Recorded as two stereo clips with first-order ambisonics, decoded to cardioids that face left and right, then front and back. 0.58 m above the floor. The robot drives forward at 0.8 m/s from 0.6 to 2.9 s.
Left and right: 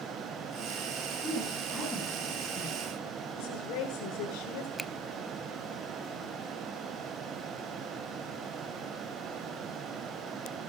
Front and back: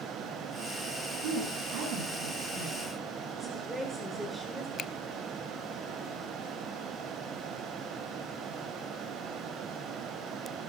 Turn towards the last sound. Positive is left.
turn(degrees=0)